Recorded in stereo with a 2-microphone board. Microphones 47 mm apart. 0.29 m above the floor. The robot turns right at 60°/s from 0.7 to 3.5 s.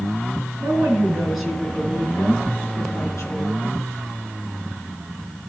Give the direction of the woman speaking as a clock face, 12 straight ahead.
2 o'clock.